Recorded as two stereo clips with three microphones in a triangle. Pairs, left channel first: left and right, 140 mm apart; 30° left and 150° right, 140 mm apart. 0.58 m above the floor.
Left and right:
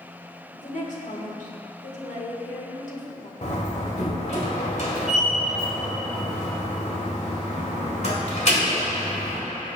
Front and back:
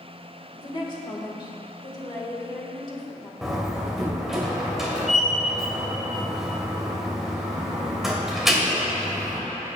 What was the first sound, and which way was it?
A woman speaking, 80° left.